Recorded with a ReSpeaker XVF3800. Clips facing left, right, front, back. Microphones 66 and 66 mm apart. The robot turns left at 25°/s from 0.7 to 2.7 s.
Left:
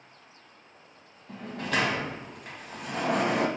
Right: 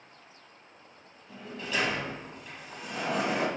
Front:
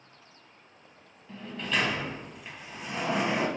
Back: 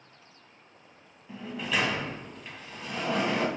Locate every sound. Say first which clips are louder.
1.3 s a sliding door: left 4 dB, even; 105° left, 0.5 m; by 3.5 s 70° left, 0.5 m